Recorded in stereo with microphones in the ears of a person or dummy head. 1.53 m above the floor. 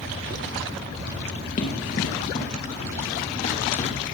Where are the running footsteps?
50° left (ahead or behind), 2 m; by 4.0 s 40° left (ahead or behind), 3 m.